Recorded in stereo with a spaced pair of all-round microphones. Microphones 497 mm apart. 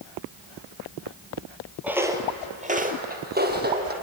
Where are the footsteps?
5° right (ahead or behind), 1.7 m; by 3.9 s 20° right (ahead or behind), 2.5 m.